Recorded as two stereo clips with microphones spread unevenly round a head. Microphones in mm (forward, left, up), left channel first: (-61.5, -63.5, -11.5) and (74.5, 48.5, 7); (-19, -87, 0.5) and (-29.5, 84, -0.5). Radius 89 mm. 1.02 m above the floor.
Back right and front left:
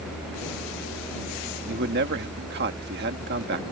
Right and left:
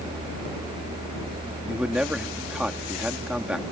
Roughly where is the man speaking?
Ahead.